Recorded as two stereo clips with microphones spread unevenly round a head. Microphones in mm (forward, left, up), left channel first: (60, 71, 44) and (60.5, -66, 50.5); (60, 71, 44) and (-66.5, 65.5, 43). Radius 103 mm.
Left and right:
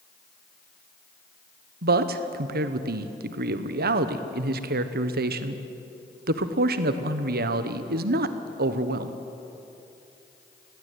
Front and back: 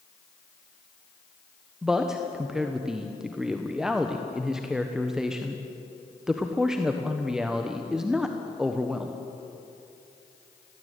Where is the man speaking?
90° right, 1.1 m.